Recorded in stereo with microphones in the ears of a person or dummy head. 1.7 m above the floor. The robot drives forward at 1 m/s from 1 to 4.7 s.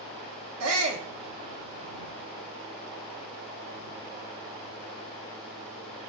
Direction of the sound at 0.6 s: 75° right (ahead or behind).